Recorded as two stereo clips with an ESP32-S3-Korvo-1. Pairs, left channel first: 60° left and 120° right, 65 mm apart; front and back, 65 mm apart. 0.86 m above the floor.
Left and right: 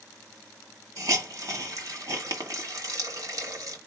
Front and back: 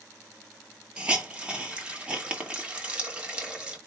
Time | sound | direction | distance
1.0 | a hiss | 105° right | 1.6 m